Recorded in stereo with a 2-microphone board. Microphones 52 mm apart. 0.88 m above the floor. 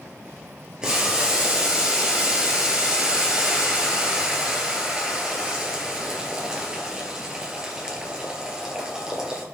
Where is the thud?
No thud in this recording.